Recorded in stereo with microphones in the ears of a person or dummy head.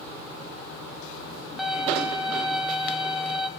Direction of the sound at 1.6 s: Centre (ahead or behind).